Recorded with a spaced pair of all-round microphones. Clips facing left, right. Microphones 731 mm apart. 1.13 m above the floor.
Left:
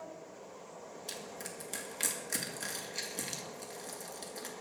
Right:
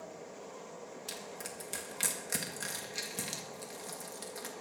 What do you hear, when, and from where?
1.1 s crushing: 40° right (ahead or behind), 1.8 m